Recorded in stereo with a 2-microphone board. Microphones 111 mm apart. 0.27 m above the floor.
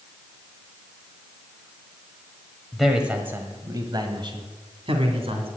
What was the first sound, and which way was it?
A man speaking, centre (ahead or behind).